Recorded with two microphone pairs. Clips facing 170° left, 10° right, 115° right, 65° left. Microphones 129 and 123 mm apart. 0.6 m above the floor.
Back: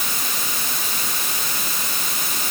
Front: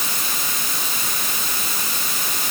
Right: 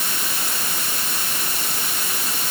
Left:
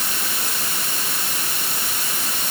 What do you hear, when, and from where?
Only background noise.